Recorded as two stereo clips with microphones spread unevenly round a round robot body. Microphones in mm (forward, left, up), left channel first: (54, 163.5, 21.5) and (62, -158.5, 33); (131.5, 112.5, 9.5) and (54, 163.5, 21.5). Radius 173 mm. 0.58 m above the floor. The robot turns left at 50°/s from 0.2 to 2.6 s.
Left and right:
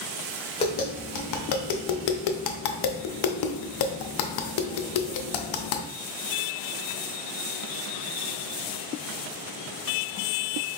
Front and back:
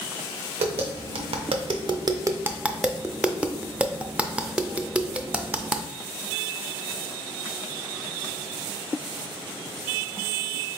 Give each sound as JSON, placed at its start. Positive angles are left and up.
{"t": 0.6, "sound": "tapping", "azimuth_deg": 165, "distance_m": 0.6}